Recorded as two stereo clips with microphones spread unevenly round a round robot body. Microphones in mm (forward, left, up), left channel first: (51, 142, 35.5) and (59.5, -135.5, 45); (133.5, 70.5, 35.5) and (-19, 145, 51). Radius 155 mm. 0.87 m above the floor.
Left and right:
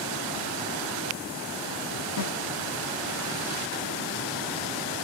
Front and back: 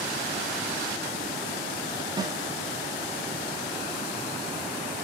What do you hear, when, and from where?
2.2 s a snare drum: 85° left, 1.7 m